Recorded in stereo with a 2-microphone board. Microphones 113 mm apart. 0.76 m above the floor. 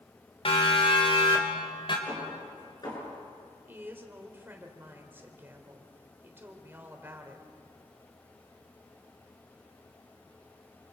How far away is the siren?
About 3.5 m.